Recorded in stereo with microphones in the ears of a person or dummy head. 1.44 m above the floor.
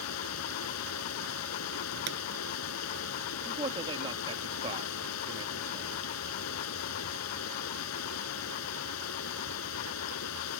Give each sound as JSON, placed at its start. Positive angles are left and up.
{"t": 0.0, "sound": "running water", "side_deg": 80}
{"t": 2.1, "sound": "a pop", "side_deg": -60}
{"t": 3.5, "sound": "a man speaking", "side_deg": -30}